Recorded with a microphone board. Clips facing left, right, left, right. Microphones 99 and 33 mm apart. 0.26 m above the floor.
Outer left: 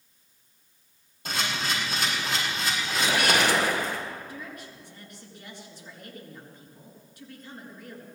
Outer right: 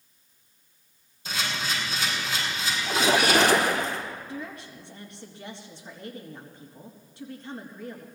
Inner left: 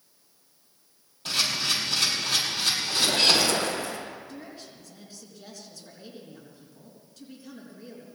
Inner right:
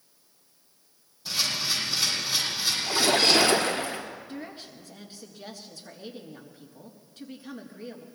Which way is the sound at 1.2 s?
65° left (ahead or behind).